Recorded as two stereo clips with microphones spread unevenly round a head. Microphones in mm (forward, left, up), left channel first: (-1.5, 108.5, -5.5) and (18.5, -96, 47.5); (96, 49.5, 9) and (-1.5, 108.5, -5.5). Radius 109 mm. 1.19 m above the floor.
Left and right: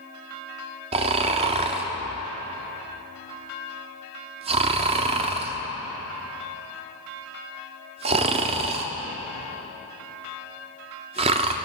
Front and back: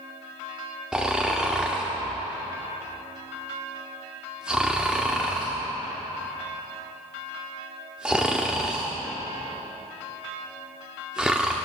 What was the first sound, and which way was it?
Snoring, 120° right.